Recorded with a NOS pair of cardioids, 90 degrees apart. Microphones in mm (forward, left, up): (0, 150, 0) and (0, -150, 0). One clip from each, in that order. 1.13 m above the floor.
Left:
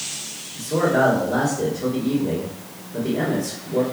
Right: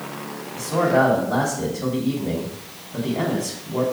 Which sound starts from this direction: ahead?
A man speaking, at 0.6 s.